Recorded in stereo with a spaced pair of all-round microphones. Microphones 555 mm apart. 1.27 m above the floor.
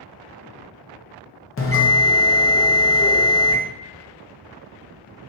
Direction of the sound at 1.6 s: 25° left (ahead or behind).